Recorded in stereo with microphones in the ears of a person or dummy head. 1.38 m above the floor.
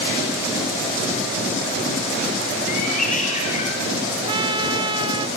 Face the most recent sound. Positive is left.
turn(degrees=-25)  # may be behind; listen again after turning